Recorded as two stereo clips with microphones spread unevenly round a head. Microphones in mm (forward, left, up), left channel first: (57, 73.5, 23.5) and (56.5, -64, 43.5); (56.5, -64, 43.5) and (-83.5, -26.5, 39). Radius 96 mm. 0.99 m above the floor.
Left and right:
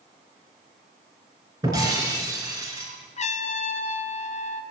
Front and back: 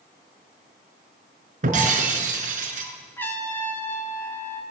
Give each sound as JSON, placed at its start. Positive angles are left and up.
{"t": 1.6, "sound": "breaking glass", "azimuth_deg": -160, "distance_m": 5.0}
{"t": 3.2, "sound": "a trumpet", "azimuth_deg": 65, "distance_m": 2.5}